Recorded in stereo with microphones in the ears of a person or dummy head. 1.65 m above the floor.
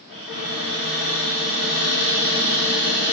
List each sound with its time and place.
0.1 s a cupboard door: 60° left (ahead or behind), 4.5 m